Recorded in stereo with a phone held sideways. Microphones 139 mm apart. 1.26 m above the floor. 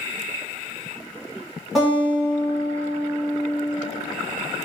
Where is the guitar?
Centre (ahead or behind), 1.6 m.